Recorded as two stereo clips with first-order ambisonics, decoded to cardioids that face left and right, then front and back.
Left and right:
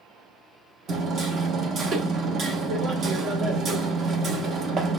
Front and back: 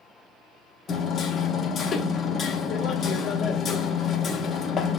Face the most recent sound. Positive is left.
turn(degrees=-50)